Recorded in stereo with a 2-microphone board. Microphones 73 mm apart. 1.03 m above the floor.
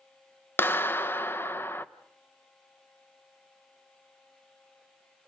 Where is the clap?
30° left (ahead or behind), 0.7 m.